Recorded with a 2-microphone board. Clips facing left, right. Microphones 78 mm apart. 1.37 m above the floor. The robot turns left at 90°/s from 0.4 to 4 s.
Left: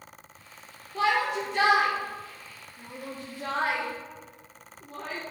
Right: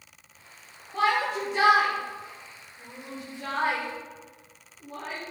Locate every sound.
0.9 s a shout: 65° right (ahead or behind), 3 m; by 5.2 s 30° right (ahead or behind), 3 m